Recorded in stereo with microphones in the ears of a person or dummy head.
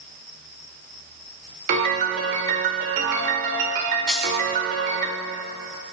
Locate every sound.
1.7 s a piano: 45° right (ahead or behind), 1.7 m
4.1 s a dropped coin: 5° left (ahead or behind), 1.9 m